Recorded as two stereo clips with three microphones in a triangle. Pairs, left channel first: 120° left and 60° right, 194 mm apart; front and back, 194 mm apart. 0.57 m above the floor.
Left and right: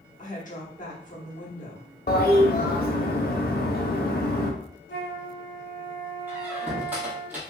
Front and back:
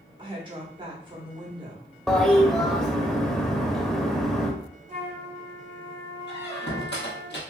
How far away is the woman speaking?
About 1.0 m.